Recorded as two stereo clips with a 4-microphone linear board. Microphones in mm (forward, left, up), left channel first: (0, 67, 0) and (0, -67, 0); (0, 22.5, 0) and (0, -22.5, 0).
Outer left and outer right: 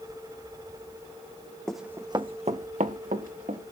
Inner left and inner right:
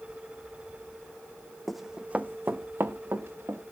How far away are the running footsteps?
About 1.1 m.